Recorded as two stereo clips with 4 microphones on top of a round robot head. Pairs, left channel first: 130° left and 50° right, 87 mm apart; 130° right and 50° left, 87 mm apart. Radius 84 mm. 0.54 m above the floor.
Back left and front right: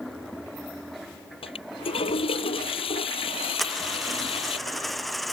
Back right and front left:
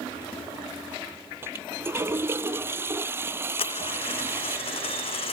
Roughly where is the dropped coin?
Behind right.